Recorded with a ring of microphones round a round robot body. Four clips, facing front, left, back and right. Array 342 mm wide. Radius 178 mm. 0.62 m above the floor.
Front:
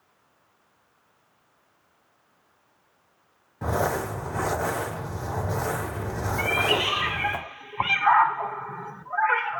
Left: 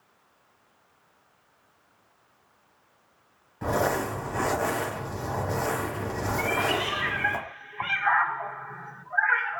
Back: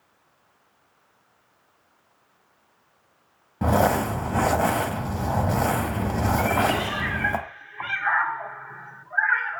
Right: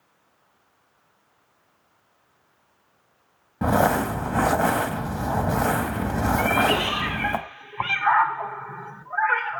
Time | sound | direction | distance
3.6 | crumpling | 130° right | 1.1 m
6.4 | a cat meowing | 30° right | 0.6 m